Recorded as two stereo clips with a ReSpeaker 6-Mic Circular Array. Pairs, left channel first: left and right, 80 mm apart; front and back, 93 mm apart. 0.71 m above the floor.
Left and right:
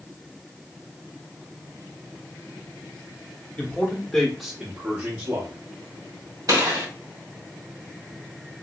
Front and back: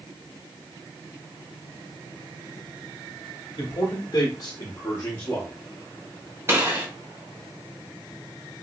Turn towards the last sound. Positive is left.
turn(degrees=-120)